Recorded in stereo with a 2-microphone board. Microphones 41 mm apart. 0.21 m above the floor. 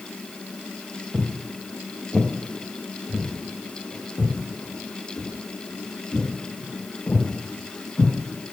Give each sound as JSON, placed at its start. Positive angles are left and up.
{"t": 1.1, "sound": "footsteps", "side_deg": -15, "distance_m": 0.5}